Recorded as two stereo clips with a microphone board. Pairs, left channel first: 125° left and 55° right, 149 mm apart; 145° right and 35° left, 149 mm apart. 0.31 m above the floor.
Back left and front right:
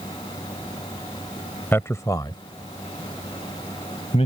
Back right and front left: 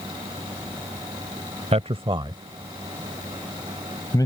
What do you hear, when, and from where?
1.7 s a man speaking: 55° left; by 4.3 s 155° left